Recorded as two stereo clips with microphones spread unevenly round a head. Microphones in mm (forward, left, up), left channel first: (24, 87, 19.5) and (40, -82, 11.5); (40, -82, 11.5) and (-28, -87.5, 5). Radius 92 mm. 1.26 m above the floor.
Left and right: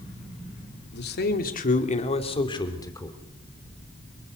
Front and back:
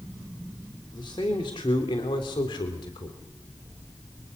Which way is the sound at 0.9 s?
70° left.